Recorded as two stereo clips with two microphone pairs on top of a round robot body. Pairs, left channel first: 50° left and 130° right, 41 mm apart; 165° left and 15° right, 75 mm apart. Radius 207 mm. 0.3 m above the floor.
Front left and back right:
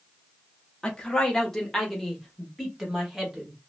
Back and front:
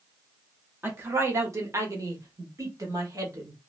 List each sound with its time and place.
0.8 s a woman speaking: straight ahead, 1.2 m; by 3.6 s 50° right, 2 m